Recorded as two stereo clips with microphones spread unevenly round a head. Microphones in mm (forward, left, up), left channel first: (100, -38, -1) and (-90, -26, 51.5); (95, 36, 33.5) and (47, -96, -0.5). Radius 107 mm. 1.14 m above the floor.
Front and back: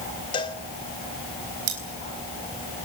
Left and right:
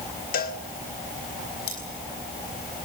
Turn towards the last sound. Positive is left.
turn(degrees=135)